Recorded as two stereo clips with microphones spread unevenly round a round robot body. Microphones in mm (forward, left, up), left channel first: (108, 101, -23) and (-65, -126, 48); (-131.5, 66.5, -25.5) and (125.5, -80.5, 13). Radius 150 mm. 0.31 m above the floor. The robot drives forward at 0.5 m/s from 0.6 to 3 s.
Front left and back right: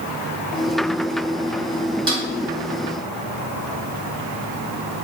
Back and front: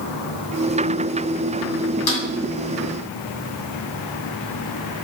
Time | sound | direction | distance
2.1 | a snare drum | 150° left | 1.9 m